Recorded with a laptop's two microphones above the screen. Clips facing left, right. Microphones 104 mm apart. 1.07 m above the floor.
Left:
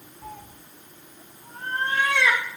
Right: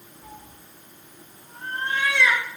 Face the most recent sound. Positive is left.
turn(degrees=40)  # may be behind; listen again after turning